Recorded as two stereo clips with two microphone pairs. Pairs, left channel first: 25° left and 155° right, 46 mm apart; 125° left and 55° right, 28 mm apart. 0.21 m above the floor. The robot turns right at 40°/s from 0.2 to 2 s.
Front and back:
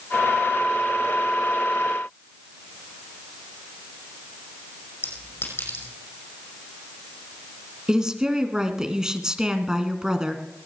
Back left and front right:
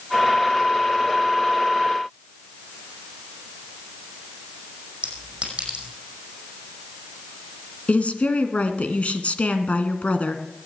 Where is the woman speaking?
130° left, 1.8 m.